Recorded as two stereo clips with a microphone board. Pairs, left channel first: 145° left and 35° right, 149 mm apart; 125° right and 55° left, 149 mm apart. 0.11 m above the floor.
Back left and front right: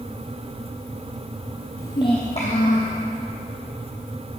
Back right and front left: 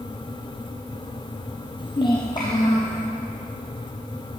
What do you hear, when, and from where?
1.8 s a child speaking: 150° right, 0.9 m; by 3.0 s 170° left, 2.5 m